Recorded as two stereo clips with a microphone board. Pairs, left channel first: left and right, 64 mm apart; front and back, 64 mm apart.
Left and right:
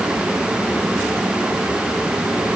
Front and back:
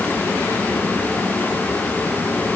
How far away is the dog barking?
I don't hear a dog barking.